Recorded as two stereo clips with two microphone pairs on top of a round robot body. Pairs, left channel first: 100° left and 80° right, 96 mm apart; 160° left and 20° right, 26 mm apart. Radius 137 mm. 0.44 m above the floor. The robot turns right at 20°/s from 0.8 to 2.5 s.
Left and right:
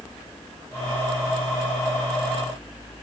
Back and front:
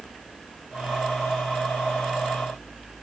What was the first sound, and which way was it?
Only background noise.